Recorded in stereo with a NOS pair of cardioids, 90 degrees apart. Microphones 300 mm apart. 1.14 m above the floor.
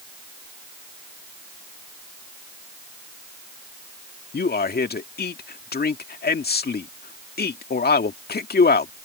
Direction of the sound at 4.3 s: 35° left.